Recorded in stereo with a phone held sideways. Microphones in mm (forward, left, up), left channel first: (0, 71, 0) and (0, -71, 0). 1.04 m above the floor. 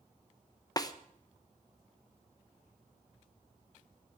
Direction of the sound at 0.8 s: 25° left (ahead or behind).